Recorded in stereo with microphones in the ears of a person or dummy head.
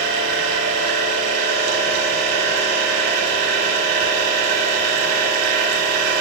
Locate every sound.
0.0 s a machine running: 60° right (ahead or behind), 6.5 m